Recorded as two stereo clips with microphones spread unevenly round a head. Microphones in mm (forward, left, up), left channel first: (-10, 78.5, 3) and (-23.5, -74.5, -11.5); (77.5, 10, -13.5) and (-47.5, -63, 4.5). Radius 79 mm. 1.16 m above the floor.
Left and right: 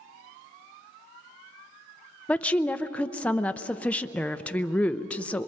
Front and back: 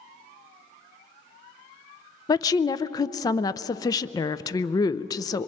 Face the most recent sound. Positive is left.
turn(degrees=0)